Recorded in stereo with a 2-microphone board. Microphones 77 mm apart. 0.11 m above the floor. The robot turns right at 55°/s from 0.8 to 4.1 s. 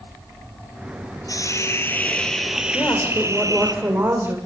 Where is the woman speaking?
140° left, 6 m; by 4.4 s 145° right, 6 m.